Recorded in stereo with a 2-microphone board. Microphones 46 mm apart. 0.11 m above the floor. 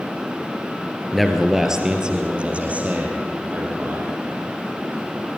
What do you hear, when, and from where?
1.1 s a man speaking: centre (ahead or behind), 2.5 m; by 4.1 s 45° right (ahead or behind), 5 m